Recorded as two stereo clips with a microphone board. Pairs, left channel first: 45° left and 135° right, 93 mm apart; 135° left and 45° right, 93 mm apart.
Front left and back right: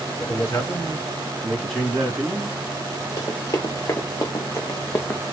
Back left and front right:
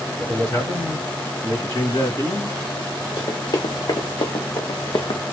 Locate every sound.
0.2 s a man speaking: 75° left, 1.8 m; by 2.6 s 150° left, 2.5 m
3.2 s running footsteps: 95° left, 1.7 m; by 5.2 s 110° left, 0.7 m